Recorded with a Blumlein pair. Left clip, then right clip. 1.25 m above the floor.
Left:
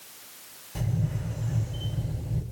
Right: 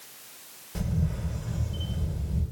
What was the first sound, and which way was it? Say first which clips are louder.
A camera shutter: even; 10° right.